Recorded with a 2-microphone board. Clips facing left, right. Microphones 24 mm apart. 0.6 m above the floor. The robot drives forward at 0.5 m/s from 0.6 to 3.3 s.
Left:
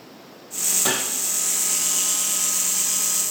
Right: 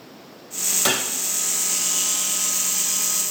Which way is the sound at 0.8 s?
65° right (ahead or behind).